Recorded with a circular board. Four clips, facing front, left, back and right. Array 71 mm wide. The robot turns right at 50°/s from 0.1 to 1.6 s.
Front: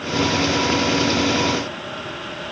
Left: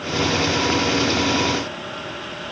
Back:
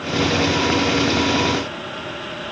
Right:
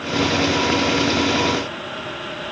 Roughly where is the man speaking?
No man speaking in this recording.